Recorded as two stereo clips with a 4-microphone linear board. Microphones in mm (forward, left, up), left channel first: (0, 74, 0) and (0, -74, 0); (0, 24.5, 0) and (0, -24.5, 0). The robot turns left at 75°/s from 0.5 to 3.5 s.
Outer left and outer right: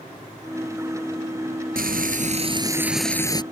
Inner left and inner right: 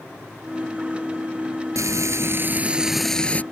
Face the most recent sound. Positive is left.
turn(degrees=145)